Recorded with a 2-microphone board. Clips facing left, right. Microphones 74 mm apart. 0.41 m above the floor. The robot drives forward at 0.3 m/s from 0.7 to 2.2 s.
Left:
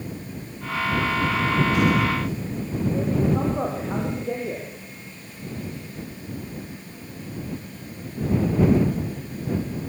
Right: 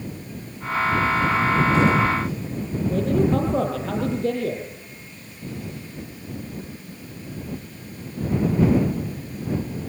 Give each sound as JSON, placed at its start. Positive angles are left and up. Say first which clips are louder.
{"t": 2.9, "sound": "a man speaking", "louder": "right 3 dB", "side_deg": -75, "distance_m": 9.5}